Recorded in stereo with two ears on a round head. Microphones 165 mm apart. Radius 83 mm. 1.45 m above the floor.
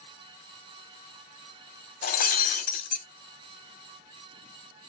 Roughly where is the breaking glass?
Left.